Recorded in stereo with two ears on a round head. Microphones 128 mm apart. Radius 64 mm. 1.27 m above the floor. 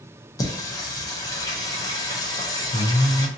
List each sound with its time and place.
0.4 s singing: 25° left (ahead or behind), 0.6 m